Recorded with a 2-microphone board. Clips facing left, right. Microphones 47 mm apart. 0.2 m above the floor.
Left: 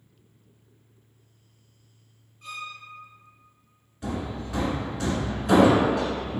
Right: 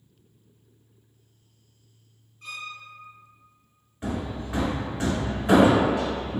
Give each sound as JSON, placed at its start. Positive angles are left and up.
{"t": 2.4, "sound": "a violin", "side_deg": 5, "distance_m": 1.5}
{"t": 4.0, "sound": "hammering", "side_deg": -30, "distance_m": 0.8}